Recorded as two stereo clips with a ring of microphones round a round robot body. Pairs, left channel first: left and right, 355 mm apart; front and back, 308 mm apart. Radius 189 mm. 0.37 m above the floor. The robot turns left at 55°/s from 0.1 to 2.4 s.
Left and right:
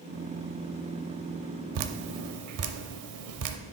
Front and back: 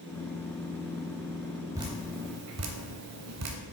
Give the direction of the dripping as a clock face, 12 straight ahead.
3 o'clock.